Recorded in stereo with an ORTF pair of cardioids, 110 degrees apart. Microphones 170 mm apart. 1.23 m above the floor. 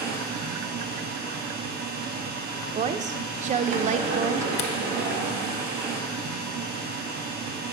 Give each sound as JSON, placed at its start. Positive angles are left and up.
{"t": 0.0, "sound": "a machine running", "azimuth_deg": -70, "distance_m": 1.3}
{"t": 2.8, "sound": "a woman speaking", "azimuth_deg": -45, "distance_m": 0.6}
{"t": 4.6, "sound": "a camera shutter", "azimuth_deg": 40, "distance_m": 0.7}